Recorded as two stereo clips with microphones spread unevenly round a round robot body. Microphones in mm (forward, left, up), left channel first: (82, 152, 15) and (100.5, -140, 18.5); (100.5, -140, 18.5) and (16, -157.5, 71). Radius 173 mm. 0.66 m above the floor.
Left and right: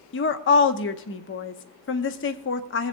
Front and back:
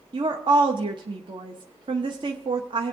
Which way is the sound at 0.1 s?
130° left.